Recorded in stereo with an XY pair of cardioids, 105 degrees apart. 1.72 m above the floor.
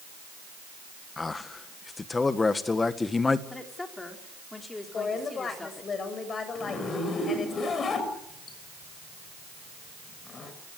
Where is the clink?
I don't hear a clink.